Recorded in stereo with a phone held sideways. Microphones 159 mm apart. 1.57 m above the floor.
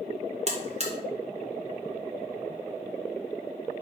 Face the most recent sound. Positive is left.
turn(degrees=-45)  # may be behind; listen again after turning